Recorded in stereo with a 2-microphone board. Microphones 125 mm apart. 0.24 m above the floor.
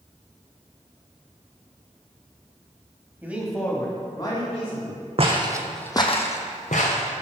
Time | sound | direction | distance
3.2 | a man speaking | 15° right (ahead or behind) | 1.1 m
5.2 | footsteps | 50° right (ahead or behind) | 0.9 m